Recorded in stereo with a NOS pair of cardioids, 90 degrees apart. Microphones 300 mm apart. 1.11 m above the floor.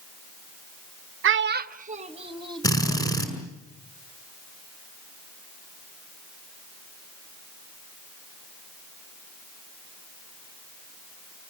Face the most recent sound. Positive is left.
turn(degrees=10)